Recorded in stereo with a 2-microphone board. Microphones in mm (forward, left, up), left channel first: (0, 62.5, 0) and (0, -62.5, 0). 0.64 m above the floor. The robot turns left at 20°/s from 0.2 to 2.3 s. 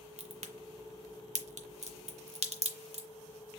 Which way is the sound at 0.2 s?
60° right (ahead or behind).